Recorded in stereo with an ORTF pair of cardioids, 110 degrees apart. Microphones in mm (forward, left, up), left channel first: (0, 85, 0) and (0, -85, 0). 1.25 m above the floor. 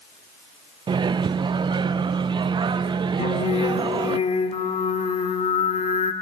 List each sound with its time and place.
0.9 s a microwave: 25° right, 0.5 m
3.2 s singing: 40° left, 1.6 m